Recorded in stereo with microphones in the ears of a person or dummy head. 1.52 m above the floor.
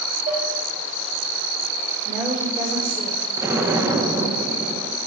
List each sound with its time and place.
0.3 s dishes clattering: 40° right (ahead or behind), 5 m
2.0 s a woman speaking: 5° right (ahead or behind), 5.5 m
3.4 s an explosion: 15° right (ahead or behind), 1.0 m